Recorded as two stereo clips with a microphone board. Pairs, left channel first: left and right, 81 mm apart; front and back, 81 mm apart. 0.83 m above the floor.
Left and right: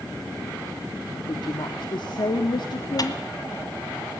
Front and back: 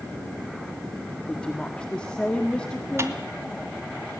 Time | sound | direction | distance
1.3 | a woman speaking | 80° left | 1.4 m
3.0 | a dropped coin | 125° left | 1.9 m